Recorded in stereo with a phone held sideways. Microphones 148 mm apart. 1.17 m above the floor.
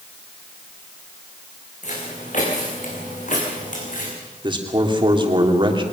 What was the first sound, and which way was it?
Footsteps, 60° left (ahead or behind).